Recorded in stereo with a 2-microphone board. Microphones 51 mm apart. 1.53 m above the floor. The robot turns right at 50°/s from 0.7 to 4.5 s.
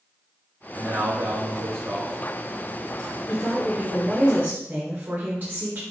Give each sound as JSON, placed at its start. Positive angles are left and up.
{"t": 0.7, "sound": "a man speaking", "azimuth_deg": -85, "distance_m": 1.7}
{"t": 3.3, "sound": "a woman speaking", "azimuth_deg": 155, "distance_m": 0.9}